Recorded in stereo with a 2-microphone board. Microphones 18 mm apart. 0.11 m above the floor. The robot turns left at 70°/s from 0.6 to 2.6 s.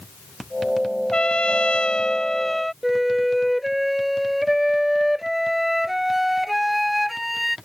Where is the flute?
5° right (ahead or behind).